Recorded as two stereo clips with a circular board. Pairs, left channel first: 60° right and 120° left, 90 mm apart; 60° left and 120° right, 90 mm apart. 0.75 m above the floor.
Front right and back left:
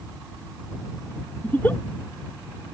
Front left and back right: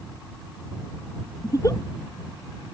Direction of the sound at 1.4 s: 10° left.